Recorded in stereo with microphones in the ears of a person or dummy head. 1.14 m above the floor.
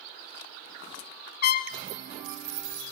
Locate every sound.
1.4 s a trumpet: 55° left (ahead or behind), 0.6 m